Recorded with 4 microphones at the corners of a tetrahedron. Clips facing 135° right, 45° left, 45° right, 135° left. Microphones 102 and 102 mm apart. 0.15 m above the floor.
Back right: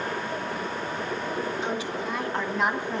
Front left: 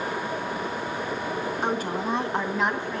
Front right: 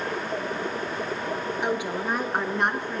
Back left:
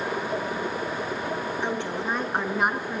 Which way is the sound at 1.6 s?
30° left.